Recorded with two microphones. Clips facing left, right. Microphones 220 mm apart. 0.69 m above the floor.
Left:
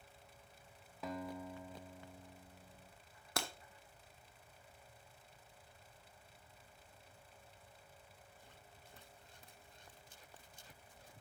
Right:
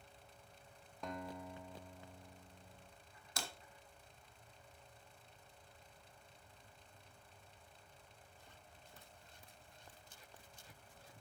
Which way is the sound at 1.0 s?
5° left (ahead or behind).